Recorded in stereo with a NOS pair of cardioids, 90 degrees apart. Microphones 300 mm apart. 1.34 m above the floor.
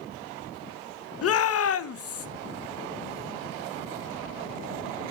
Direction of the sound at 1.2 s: 50° left.